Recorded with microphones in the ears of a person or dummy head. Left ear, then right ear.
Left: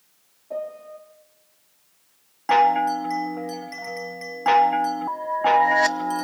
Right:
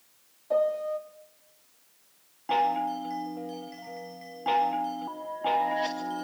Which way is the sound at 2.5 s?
55° left (ahead or behind).